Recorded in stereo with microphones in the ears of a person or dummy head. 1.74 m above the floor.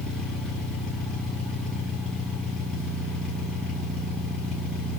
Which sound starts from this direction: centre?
An engine running, at 0.0 s.